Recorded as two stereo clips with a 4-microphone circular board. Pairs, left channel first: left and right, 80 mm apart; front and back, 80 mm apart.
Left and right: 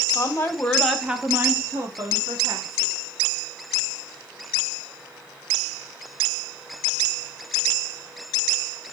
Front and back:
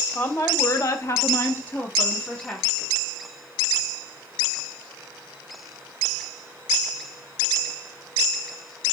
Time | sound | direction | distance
0.1 | a woman speaking | 50° left | 0.9 m